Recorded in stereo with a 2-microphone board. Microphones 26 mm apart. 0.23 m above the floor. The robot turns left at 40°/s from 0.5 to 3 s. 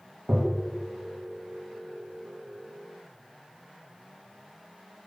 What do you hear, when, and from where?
0.3 s tapping: 75° right (ahead or behind), 3.5 m; by 0.7 s 80° right, 3.5 m